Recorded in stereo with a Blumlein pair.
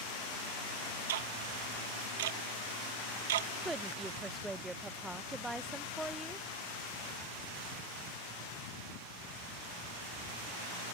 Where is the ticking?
55° right.